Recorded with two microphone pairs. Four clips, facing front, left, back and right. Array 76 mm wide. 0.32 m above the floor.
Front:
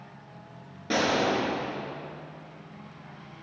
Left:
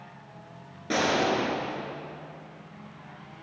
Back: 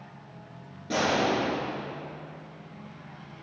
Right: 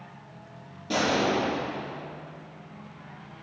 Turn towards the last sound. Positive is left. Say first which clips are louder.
# even, even
turn(degrees=35)